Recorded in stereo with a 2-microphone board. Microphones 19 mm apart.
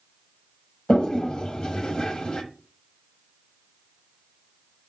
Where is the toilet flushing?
50° left (ahead or behind), 1.2 m.